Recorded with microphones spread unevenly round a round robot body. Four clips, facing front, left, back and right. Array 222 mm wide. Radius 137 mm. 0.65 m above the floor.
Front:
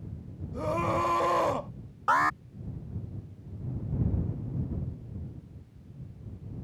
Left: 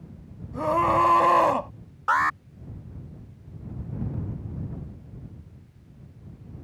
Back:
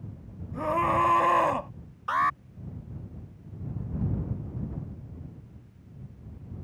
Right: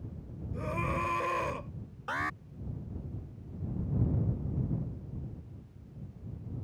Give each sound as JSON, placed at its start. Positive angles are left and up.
{"t": 0.5, "sound": "a scream", "azimuth_deg": 120}
{"t": 2.1, "sound": "an alarm", "azimuth_deg": -10}